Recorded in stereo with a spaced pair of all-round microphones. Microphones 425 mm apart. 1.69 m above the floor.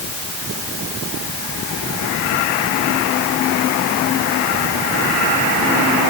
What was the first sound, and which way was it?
Only background noise.